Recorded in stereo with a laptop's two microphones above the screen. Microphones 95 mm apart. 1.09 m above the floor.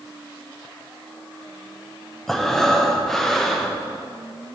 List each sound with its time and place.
2.3 s breathing: 5° left (ahead or behind), 0.6 m